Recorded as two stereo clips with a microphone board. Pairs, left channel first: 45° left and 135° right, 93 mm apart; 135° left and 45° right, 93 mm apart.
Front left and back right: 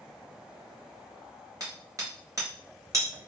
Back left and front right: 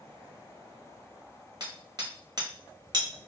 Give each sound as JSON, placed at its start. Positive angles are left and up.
{"t": 1.6, "sound": "hammering", "azimuth_deg": -85, "distance_m": 1.1}